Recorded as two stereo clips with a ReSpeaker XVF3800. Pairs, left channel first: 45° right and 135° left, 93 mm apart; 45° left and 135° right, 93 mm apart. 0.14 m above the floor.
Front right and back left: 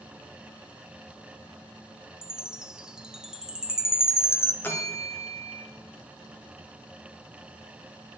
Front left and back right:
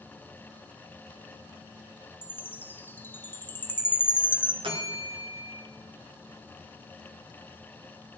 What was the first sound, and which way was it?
A chime, 65° left.